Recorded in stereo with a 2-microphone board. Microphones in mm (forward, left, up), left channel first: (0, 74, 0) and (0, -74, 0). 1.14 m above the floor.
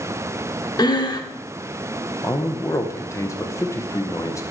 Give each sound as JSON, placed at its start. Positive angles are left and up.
{"t": 0.8, "sound": "breathing", "side_deg": 25, "distance_m": 0.8}
{"t": 2.2, "sound": "a man speaking", "side_deg": 20, "distance_m": 1.0}